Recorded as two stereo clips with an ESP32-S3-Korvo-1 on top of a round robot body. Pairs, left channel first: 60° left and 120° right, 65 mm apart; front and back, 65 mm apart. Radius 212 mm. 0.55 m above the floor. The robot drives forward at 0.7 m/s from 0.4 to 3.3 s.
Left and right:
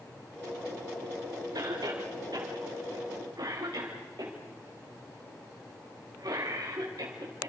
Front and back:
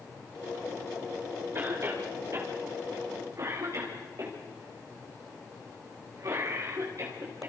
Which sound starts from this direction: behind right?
A cough, at 1.6 s.